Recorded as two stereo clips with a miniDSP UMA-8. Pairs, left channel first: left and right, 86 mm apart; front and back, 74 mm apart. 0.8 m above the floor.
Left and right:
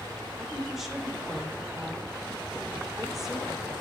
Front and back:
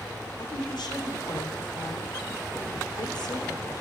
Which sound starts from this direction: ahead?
A woman speaking, at 0.4 s.